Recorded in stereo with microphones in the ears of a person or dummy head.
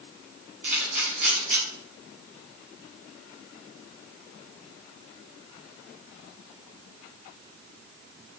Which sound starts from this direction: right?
A camera shutter, at 0.6 s.